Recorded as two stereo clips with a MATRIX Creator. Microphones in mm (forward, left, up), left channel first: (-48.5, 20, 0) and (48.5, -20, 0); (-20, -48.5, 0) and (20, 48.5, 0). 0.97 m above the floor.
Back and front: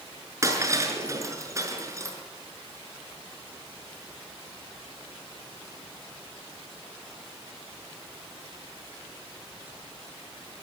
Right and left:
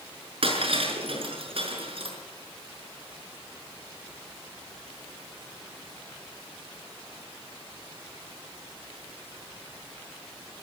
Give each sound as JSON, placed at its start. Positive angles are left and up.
{"t": 0.4, "sound": "breaking glass", "azimuth_deg": 40, "distance_m": 6.5}